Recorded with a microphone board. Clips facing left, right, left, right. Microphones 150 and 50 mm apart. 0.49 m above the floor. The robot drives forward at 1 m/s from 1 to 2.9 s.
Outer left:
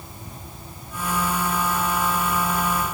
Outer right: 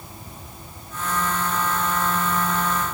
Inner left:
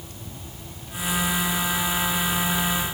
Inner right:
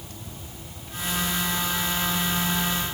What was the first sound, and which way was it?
Only background noise.